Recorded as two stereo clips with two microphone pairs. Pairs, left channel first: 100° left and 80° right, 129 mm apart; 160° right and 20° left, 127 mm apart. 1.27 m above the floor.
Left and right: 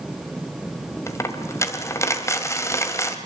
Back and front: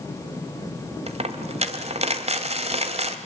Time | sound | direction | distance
1.1 | a dropped coin | 35° left | 1.7 m